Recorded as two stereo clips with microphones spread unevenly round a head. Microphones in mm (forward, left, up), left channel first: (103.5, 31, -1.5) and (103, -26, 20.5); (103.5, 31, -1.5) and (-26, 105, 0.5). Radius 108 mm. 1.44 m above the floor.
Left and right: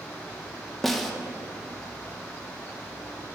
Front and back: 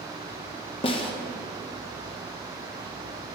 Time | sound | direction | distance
0.8 | a snare drum | 30° right | 0.6 m